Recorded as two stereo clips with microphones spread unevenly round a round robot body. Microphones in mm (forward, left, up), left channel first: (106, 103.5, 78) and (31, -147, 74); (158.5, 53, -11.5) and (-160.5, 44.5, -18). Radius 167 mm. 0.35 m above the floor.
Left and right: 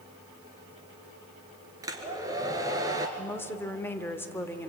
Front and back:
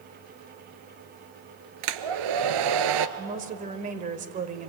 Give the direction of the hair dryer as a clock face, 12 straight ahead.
6 o'clock.